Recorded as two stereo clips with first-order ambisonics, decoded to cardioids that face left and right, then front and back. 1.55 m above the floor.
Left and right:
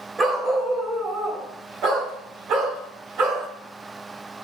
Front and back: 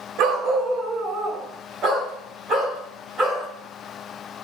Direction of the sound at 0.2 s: 160° right.